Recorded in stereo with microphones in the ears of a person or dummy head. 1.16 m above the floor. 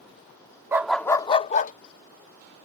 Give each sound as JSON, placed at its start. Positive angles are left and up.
{"t": 0.7, "sound": "a dog barking", "side_deg": -20}